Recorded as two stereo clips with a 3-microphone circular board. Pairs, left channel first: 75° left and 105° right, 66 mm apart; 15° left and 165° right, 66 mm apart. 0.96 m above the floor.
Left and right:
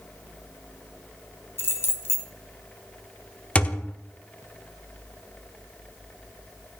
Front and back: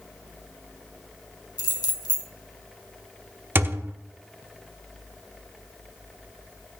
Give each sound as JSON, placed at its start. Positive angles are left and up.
{"t": 1.6, "sound": "keys jangling", "azimuth_deg": 20, "distance_m": 1.2}
{"t": 3.5, "sound": "a thud", "azimuth_deg": 140, "distance_m": 0.9}